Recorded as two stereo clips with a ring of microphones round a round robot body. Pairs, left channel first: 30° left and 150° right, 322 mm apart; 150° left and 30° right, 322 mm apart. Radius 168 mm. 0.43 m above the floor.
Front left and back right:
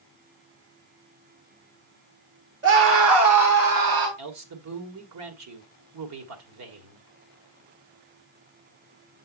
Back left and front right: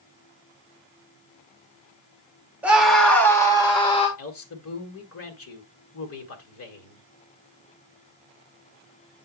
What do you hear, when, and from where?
2.6 s a scream: 115° right, 1.6 m; by 4.1 s 140° right, 2 m
4.2 s a man speaking: 170° right, 1.6 m